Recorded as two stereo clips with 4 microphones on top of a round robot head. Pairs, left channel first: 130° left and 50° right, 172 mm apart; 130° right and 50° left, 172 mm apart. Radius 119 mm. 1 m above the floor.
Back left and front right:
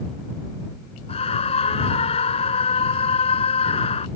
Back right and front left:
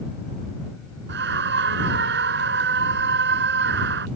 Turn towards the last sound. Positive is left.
turn(degrees=70)